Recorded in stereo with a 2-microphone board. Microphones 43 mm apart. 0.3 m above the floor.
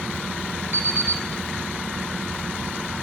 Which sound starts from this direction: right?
An alarm clock, at 0.7 s.